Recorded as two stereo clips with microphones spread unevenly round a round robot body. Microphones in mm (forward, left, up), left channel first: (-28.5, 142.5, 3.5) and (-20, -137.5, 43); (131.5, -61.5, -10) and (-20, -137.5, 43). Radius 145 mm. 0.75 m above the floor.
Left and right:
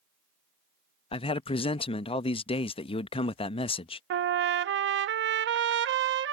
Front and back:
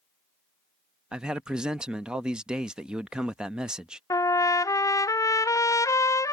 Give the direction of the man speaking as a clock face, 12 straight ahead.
9 o'clock.